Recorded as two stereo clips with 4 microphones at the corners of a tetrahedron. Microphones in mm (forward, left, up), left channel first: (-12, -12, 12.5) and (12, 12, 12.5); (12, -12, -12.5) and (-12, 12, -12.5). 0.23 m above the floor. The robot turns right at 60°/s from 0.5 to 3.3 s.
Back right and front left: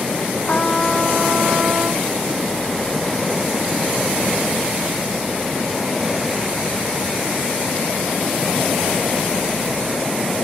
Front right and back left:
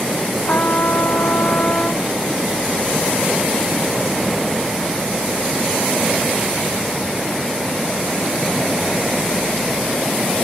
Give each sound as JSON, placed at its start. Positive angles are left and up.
{"t": 0.5, "sound": "a trumpet", "azimuth_deg": -80}